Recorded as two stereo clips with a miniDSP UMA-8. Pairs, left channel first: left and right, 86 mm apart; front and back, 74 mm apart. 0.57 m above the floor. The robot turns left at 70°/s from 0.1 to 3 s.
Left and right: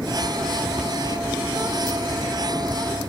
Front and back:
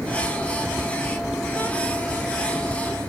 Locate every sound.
0.8 s a cupboard door: 150° right; by 1.0 s 165° right